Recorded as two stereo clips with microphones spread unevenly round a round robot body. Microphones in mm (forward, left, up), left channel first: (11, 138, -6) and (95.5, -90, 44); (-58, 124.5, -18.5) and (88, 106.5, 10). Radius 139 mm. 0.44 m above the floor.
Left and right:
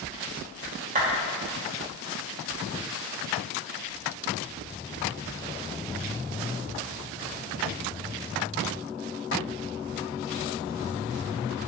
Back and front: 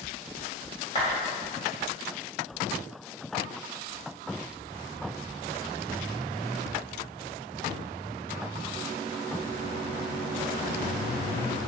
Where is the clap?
130° right, 2 m.